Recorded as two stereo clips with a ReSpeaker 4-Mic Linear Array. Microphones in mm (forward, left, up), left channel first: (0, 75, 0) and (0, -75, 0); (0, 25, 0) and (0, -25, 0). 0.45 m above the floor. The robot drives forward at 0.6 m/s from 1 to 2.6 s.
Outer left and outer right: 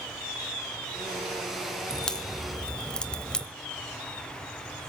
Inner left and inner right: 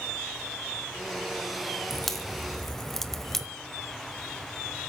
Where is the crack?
5° left (ahead or behind), 1.7 m.